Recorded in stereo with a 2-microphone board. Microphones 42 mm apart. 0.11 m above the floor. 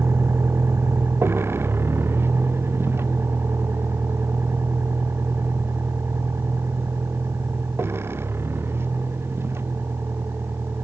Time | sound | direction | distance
0.0 | a vehicle | 75° right (ahead or behind) | ?